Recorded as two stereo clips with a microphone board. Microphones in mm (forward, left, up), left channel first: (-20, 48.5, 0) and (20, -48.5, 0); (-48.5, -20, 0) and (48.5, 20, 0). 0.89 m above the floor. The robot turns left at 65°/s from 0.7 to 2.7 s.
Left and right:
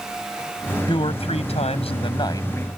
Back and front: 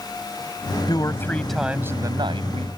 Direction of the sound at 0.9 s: 155° left.